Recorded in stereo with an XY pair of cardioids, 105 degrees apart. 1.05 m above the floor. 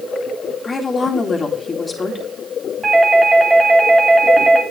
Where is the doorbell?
35° right, 1.5 m.